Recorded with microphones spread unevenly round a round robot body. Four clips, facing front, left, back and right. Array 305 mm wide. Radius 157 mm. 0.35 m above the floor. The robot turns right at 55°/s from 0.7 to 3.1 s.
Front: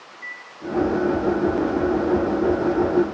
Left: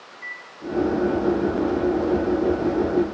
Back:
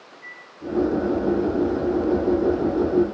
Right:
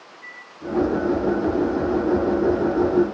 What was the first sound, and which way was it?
A microwave, straight behind.